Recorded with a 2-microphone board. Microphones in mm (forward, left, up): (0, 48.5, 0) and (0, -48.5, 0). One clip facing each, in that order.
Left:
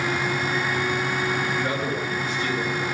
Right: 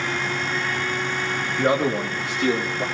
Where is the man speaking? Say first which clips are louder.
Right 5 dB; 55° right (ahead or behind), 1.9 m; by 2.9 s 80° right, 3 m.